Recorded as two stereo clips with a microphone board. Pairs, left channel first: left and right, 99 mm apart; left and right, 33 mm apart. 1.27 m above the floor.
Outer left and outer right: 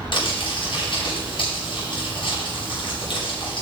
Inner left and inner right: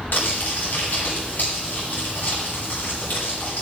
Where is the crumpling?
65° left (ahead or behind), 7 m.